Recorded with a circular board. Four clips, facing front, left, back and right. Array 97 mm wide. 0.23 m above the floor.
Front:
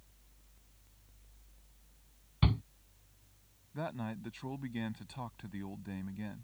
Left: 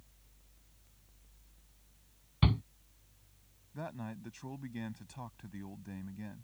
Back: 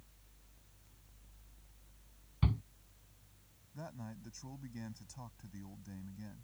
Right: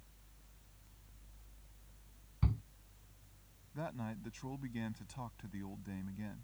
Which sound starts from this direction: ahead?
A man speaking, at 3.7 s.